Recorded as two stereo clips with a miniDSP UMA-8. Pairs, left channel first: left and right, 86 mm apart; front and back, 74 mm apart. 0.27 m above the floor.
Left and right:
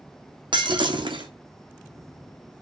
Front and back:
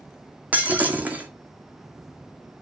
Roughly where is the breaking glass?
Right.